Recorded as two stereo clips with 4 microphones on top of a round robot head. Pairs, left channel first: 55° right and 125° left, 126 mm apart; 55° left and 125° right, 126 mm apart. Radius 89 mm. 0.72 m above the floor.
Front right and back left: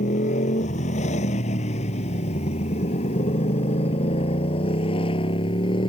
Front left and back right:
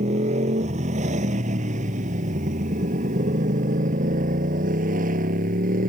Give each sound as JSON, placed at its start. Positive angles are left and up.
{"t": 0.0, "sound": "a motorcycle", "azimuth_deg": -90}